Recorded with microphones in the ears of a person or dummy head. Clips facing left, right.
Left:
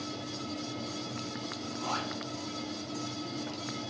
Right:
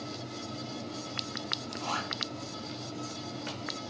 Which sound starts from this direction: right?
A zipper, at 1.7 s.